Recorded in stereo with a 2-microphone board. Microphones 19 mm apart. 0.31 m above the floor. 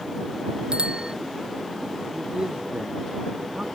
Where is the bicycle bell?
60° right (ahead or behind).